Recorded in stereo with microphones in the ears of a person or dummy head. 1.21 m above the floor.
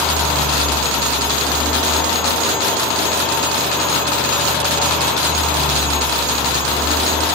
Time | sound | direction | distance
0.0 | a fan | 10° left (ahead or behind) | 5.5 m